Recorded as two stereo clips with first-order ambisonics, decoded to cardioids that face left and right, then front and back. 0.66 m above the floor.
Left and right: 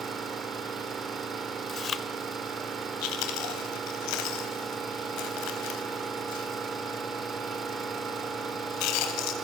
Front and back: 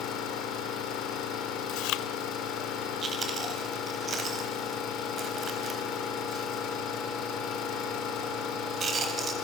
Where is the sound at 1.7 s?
30° left, 0.9 m.